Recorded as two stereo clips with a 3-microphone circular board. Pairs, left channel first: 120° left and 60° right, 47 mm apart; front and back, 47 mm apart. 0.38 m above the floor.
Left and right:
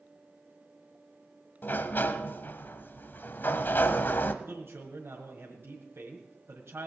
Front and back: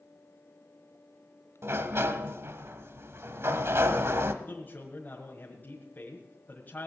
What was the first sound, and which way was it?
A sliding door, 160° left.